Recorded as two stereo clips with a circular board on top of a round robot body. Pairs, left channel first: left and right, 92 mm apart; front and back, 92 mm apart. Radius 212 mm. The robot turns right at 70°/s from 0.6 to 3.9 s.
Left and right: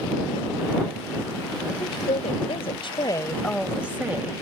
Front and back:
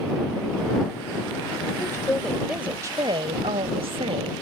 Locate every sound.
1.8 s a woman speaking: 50° left; by 4.3 s 165° right